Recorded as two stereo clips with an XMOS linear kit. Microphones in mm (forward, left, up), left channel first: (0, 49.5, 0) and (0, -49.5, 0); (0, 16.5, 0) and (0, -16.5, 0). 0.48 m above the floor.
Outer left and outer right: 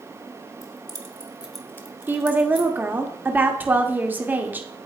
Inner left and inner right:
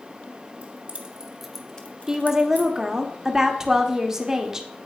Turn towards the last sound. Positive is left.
turn(degrees=-20)  # may be behind; listen again after turning